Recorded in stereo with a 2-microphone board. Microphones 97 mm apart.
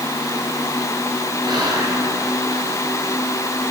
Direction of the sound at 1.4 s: 50° right (ahead or behind).